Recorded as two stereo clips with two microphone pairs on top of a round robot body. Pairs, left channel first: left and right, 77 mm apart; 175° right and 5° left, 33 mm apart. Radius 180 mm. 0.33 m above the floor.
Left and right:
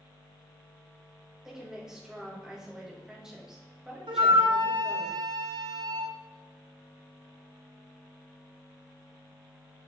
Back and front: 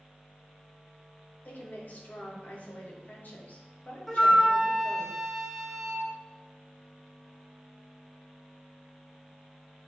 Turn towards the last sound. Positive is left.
turn(degrees=-90)